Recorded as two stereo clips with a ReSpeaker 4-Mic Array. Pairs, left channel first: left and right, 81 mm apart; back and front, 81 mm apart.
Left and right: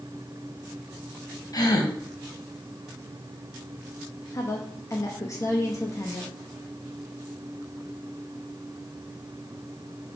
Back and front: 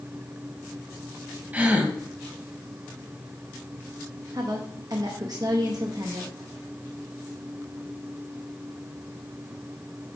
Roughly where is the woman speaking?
Ahead left.